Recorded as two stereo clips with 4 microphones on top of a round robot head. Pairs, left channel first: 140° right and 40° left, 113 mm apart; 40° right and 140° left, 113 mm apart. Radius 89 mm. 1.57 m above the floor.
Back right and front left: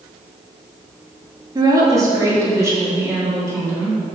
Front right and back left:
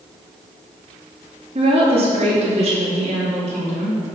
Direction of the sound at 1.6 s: 100° left.